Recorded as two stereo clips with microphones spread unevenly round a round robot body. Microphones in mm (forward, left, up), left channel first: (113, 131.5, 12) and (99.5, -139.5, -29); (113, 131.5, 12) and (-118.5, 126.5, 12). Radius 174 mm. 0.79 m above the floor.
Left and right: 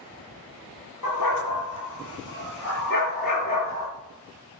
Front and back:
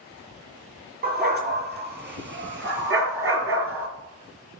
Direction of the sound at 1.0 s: 135° left.